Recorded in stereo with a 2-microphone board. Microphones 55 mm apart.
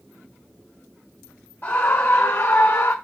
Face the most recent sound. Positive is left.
turn(degrees=50)  # may be behind; listen again after turning